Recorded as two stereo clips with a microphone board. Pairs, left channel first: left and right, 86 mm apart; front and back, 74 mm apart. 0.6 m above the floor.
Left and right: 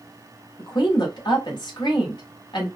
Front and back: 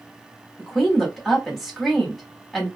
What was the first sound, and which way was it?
A woman speaking, 90° left.